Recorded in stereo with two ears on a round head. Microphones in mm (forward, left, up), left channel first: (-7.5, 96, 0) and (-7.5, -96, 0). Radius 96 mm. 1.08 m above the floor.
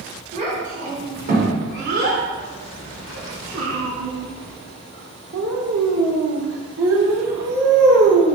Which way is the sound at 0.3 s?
35° right (ahead or behind).